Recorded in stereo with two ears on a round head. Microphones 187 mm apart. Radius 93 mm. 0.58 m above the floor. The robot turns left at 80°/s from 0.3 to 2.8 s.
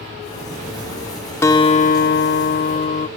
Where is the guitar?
160° left; by 3.1 s 50° left.